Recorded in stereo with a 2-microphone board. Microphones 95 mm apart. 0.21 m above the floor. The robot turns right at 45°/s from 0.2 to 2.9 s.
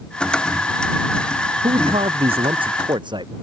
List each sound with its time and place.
1.6 s a man speaking: 110° right; by 3.3 s 55° right